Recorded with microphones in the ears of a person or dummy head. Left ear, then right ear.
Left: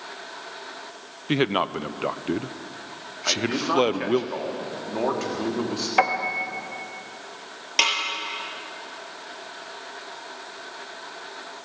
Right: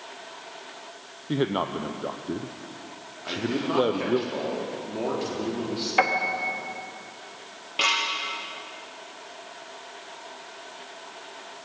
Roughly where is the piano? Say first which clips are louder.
Left 1 dB; centre.